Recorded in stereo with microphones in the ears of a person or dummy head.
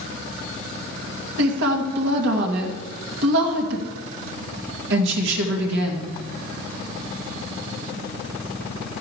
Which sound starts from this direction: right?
A woman speaking, at 1.4 s.